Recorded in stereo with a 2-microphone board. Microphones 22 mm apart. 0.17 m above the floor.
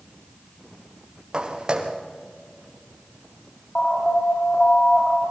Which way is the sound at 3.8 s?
45° left (ahead or behind).